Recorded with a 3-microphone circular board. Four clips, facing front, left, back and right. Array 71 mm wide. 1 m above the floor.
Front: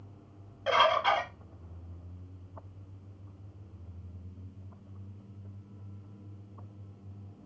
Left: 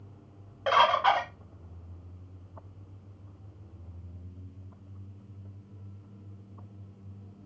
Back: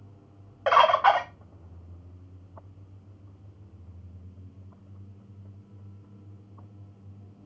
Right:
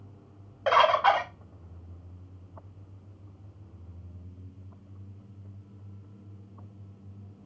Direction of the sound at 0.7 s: 175° right.